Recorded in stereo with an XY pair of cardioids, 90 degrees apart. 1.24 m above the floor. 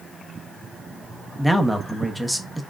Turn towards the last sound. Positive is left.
turn(degrees=-5)